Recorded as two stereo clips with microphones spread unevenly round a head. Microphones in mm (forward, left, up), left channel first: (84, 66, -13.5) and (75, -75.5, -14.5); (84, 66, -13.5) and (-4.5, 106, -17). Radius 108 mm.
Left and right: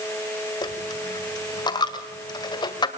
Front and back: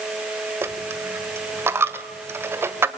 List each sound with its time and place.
0.6 s a dropped coin: 115° left, 1.5 m